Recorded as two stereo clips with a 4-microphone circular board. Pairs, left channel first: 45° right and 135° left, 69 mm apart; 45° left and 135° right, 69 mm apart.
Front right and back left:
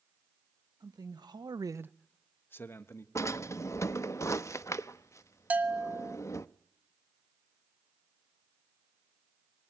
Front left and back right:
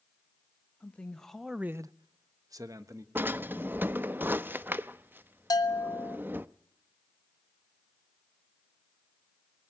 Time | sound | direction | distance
0.8 | a man speaking | 115° left | 1.6 m
3.1 | a drawer | 80° right | 0.6 m
5.5 | a bell | 65° left | 1.2 m